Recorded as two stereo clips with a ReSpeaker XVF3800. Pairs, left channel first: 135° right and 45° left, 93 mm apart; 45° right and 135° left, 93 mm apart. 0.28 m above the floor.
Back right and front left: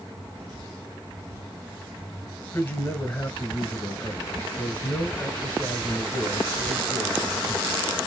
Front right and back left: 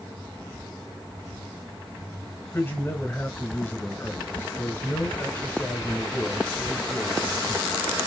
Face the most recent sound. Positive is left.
turn(degrees=-90)